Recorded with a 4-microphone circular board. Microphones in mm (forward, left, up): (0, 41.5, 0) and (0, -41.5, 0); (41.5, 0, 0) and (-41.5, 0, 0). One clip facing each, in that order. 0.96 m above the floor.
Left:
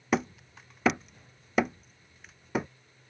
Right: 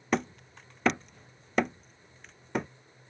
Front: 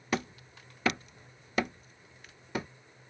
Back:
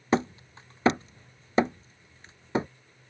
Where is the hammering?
175° left.